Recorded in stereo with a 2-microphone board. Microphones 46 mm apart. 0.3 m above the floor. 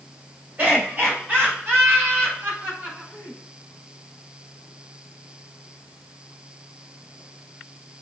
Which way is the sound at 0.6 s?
45° right (ahead or behind).